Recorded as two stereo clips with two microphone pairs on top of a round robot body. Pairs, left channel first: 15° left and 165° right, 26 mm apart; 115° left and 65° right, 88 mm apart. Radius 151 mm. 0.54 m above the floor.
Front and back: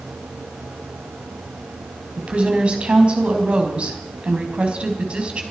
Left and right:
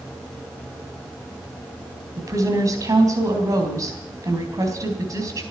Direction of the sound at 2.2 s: 120° right.